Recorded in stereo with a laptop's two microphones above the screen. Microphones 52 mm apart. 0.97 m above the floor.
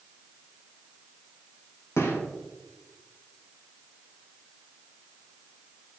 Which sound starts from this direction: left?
A gunshot, at 2.0 s.